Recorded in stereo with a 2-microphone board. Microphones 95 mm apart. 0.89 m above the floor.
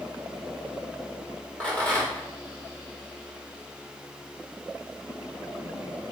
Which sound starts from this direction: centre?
A rattle, at 1.6 s.